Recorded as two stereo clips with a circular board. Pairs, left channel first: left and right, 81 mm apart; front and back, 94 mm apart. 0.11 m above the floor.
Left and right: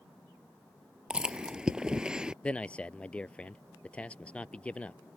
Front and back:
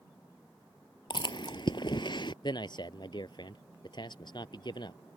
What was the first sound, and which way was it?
Chewing, 10° right.